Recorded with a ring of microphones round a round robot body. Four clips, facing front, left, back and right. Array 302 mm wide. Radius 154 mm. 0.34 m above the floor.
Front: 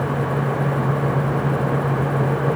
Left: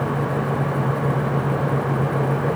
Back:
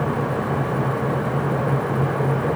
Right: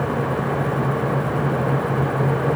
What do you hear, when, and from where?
Only background noise.